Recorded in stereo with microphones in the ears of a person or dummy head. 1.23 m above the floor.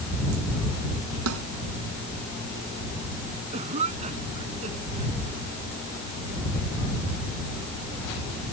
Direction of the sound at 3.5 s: 35° right (ahead or behind).